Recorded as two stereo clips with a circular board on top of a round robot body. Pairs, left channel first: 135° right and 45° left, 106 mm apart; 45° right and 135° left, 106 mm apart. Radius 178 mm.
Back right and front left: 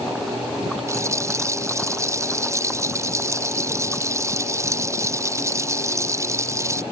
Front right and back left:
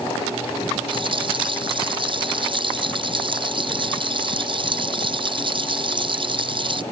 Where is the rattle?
105° left.